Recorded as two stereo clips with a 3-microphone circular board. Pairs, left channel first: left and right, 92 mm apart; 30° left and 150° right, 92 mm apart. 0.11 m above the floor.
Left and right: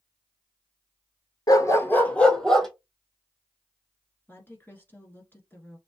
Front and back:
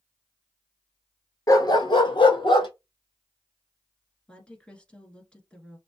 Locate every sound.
1.5 s a dog barking: 65° left, 0.5 m; by 2.7 s straight ahead, 1.1 m
4.3 s a woman speaking: 90° left, 1.4 m